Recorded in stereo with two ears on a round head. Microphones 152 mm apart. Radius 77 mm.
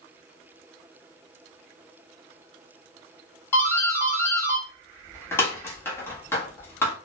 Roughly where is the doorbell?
Centre.